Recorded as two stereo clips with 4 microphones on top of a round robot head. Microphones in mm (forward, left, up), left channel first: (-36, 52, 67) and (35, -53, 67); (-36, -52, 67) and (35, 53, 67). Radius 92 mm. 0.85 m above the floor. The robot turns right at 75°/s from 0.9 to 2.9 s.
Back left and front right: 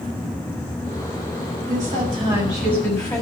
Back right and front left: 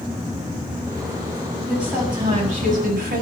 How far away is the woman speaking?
About 7 m.